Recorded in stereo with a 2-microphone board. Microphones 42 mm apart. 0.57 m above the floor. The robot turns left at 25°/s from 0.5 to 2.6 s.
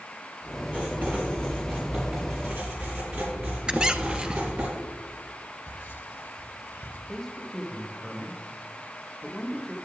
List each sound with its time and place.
0.7 s writing: 40° right, 6 m; by 4.7 s 90° right, 6 m
3.7 s a squeak: 20° right (ahead or behind), 0.7 m
5.7 s whispering: 60° left (ahead or behind), 2.5 m
7.1 s a man speaking: 10° left (ahead or behind), 1.3 m